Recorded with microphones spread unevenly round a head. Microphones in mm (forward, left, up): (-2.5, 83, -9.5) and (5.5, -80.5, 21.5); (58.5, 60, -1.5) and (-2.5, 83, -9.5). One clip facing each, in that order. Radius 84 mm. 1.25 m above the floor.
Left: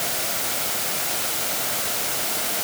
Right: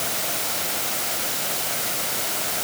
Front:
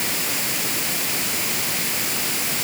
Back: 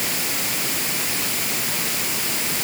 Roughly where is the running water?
I don't hear running water.